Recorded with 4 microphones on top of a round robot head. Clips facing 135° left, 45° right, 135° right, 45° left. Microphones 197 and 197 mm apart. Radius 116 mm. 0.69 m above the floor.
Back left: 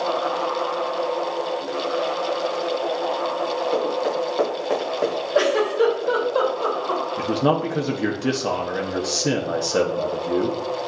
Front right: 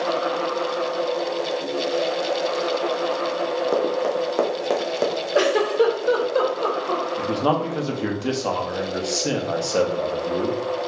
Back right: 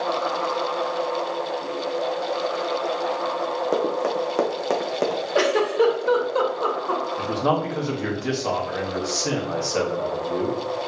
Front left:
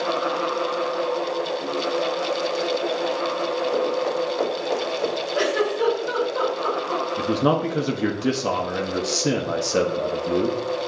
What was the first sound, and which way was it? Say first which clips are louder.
Running footsteps: front right 1 dB, back right 2 dB; 90° right.